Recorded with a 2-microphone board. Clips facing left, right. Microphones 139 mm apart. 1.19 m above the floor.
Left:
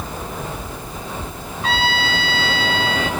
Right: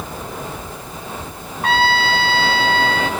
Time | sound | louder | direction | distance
1.6 | a trumpet | right 4 dB | 55° right (ahead or behind) | 1.4 m